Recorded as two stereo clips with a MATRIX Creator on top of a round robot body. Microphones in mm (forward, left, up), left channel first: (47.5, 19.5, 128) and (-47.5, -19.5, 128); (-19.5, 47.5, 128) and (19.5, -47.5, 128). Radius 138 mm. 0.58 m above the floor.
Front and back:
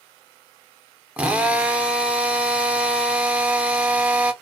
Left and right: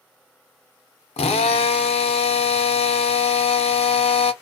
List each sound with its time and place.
1.2 s a drill: 125° left, 0.6 m